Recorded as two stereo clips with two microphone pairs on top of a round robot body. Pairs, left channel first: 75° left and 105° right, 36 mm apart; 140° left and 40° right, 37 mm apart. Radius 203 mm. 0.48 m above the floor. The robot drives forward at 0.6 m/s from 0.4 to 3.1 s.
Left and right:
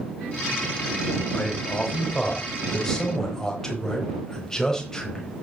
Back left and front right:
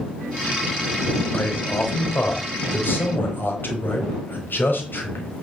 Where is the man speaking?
135° left, 3 m; by 5.3 s 145° left, 4 m.